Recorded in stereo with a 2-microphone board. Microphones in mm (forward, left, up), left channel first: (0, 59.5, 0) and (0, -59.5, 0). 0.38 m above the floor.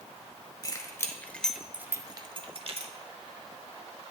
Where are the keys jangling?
30° left (ahead or behind), 1.1 m; by 2.9 s 60° right (ahead or behind), 1.0 m.